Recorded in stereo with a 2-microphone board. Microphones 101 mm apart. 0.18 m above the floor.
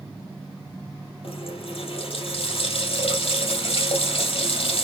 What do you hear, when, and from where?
1.2 s a running tap: 70° left (ahead or behind), 3.5 m